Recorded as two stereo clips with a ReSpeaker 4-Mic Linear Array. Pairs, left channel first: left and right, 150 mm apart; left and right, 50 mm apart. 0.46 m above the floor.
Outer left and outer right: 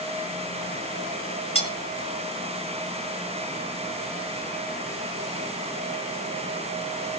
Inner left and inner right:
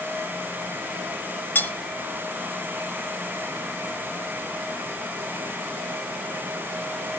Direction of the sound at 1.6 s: 40° left (ahead or behind).